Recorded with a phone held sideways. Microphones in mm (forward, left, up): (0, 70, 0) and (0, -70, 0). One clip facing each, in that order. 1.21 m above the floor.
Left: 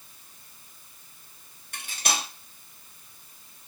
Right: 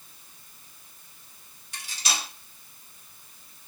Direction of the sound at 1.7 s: 55° left (ahead or behind).